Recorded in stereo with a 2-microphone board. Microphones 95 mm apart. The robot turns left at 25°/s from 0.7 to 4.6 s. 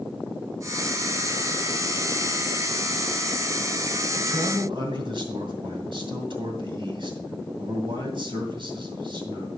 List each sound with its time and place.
4.2 s a man speaking: 60° right (ahead or behind), 2.5 m